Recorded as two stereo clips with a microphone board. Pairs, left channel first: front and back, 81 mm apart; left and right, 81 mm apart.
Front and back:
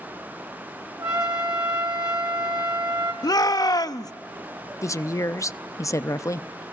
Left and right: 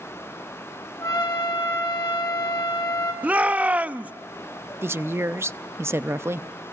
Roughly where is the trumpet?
Behind left.